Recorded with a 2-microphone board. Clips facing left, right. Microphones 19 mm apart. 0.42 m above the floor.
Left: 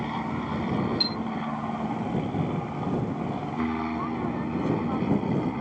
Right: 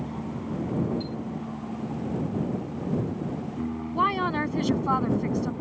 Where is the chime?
50° left (ahead or behind).